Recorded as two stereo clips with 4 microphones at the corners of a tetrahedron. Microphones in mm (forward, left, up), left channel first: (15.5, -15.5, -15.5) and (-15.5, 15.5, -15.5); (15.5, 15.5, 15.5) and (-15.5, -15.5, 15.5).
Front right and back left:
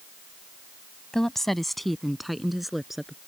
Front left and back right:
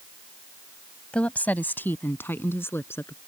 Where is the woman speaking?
25° left; by 3.2 s 50° left.